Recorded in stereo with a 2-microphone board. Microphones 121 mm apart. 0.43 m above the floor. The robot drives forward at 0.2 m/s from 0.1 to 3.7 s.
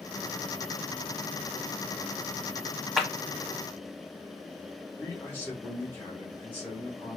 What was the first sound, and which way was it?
A clap, centre (ahead or behind).